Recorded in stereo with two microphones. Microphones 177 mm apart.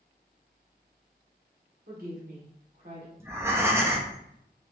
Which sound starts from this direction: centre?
Breathing, at 3.2 s.